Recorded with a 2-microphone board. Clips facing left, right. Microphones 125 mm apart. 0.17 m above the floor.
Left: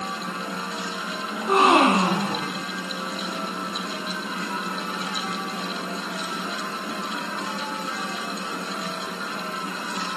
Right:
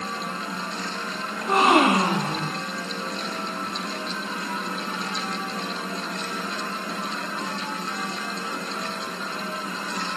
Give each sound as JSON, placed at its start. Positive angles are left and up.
{"t": 1.3, "sound": "a gasp", "side_deg": 10, "distance_m": 9.5}